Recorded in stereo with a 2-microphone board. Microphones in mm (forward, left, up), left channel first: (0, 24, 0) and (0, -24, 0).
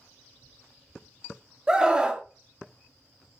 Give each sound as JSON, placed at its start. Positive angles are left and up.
{"t": 1.7, "sound": "a scream", "side_deg": -15, "distance_m": 0.6}